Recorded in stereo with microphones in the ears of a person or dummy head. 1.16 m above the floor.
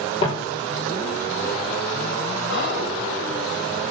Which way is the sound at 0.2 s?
35° left (ahead or behind).